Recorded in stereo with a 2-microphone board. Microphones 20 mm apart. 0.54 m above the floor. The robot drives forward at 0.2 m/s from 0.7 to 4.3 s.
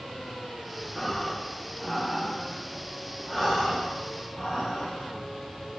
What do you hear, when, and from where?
0.9 s breathing: 10° left (ahead or behind), 0.5 m; by 5.8 s 5° left (ahead or behind), 1.1 m